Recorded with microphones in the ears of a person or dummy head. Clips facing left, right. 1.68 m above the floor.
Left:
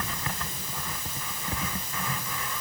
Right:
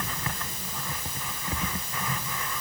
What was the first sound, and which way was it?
Only background noise.